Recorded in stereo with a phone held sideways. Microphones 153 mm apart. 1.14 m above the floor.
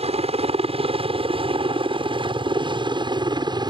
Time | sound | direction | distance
0.0 | a helicopter | 40° right (ahead or behind) | ?